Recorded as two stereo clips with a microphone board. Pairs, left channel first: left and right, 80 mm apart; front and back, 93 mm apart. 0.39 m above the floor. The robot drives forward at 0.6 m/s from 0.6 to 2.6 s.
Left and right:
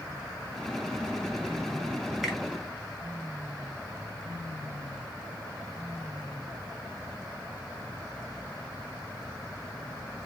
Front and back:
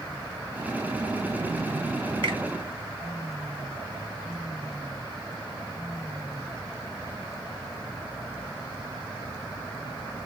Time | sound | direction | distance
2.2 | a finger snap | 175° right | 1.5 m